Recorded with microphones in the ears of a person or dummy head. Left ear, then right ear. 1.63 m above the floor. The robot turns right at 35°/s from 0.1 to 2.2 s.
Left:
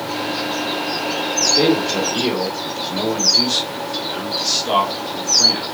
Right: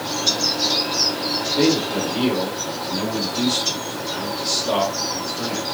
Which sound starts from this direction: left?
A man speaking, at 1.6 s.